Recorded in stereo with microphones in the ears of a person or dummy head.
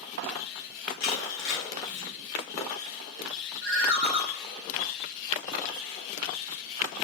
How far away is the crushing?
About 0.9 m.